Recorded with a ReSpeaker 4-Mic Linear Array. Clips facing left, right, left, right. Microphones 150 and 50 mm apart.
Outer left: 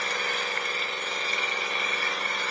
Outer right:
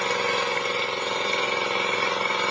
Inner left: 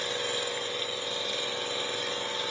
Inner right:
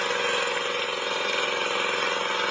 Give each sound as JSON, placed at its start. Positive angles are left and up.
{"t": 0.0, "sound": "an engine running", "side_deg": -75, "distance_m": 1.5}